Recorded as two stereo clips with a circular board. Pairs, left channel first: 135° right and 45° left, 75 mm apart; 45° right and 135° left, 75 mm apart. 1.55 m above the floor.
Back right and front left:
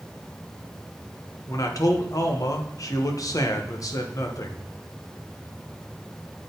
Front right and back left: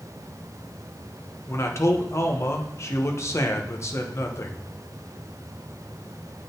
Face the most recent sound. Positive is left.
turn(degrees=-95)